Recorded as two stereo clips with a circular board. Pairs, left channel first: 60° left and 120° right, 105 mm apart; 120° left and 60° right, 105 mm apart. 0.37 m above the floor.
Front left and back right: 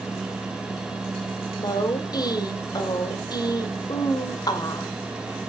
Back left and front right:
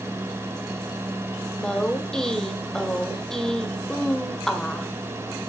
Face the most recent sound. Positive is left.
turn(degrees=40)